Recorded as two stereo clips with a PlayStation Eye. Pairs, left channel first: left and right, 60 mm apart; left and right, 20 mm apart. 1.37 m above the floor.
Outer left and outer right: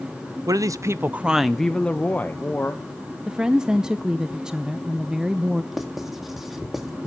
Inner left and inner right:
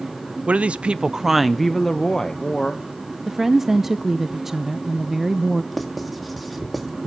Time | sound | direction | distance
0.5 | a woman speaking | 75° right (ahead or behind) | 0.7 m
3.3 | a woman speaking | 10° right (ahead or behind) | 0.6 m
5.7 | writing | 5° right (ahead or behind) | 1.9 m